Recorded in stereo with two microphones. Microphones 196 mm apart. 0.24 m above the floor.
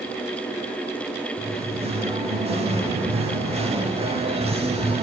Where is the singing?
30° right (ahead or behind), 0.6 m.